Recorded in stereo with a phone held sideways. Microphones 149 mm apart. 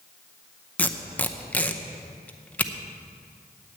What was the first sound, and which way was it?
Tape being pulled, 10° left (ahead or behind).